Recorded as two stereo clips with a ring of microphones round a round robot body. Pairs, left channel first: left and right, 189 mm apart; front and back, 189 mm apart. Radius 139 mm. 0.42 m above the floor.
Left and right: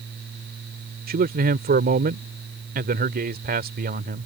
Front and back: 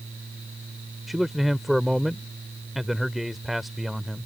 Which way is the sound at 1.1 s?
90° right.